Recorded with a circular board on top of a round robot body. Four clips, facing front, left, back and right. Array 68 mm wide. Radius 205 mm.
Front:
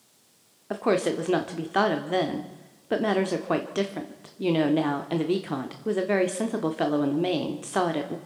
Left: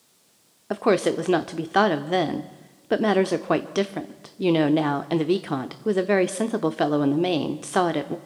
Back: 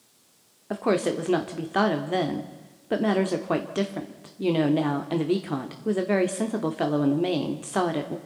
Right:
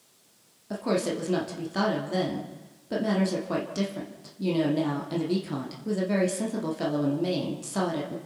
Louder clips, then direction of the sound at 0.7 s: Left 7 dB, even; 85° left.